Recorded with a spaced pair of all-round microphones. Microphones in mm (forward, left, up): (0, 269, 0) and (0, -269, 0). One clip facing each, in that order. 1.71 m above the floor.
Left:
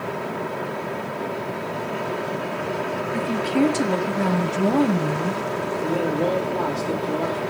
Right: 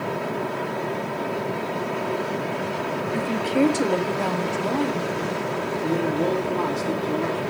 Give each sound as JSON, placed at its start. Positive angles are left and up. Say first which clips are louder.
{"t": 3.1, "sound": "a woman speaking", "louder": "left 1 dB", "side_deg": 5, "distance_m": 1.5}
{"t": 5.8, "sound": "a man speaking", "louder": "even", "side_deg": 5, "distance_m": 3.5}